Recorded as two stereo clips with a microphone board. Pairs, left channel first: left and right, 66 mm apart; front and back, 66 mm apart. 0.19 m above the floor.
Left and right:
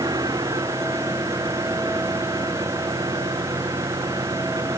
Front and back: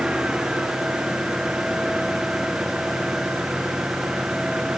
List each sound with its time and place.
0.0 s an engine running: 100° right